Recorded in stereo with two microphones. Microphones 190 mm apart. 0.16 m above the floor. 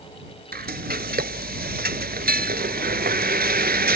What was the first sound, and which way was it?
Frying, 55° right (ahead or behind).